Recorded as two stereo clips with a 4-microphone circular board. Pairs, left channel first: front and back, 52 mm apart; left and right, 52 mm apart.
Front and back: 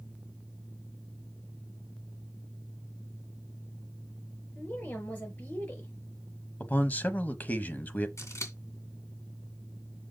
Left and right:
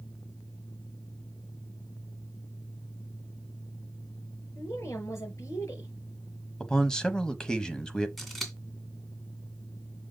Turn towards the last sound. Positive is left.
turn(degrees=5)